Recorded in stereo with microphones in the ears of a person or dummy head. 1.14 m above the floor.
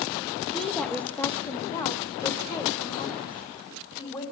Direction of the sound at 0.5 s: 5° left (ahead or behind).